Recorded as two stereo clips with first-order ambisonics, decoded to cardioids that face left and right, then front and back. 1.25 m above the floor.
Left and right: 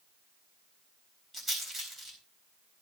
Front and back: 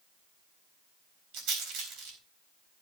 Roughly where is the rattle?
Behind.